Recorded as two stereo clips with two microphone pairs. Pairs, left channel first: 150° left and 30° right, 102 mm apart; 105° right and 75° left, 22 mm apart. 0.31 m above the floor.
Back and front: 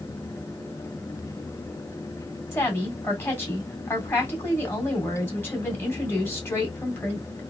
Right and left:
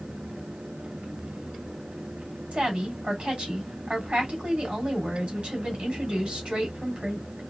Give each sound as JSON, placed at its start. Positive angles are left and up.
{"t": 2.5, "sound": "a woman speaking", "azimuth_deg": 90, "distance_m": 2.0}